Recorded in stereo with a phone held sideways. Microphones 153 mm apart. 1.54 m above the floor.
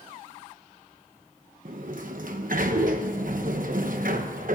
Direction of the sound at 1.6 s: 65° right (ahead or behind).